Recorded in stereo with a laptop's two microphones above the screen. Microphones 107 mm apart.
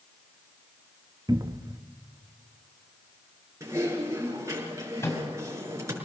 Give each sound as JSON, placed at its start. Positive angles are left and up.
{"t": 1.3, "sound": "a cupboard door", "side_deg": -35, "distance_m": 1.0}
{"t": 3.6, "sound": "typing on a keyboard", "side_deg": -30, "distance_m": 5.5}
{"t": 5.0, "sound": "a microwave", "side_deg": 25, "distance_m": 4.5}